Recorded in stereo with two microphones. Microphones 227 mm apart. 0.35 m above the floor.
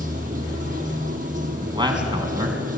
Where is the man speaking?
20° right (ahead or behind), 4 m.